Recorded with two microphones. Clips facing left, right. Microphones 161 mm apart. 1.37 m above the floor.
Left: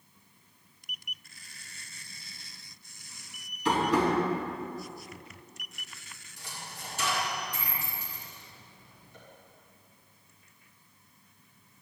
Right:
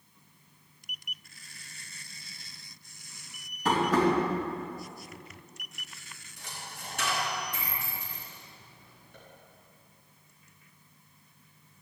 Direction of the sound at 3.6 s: 50° right (ahead or behind).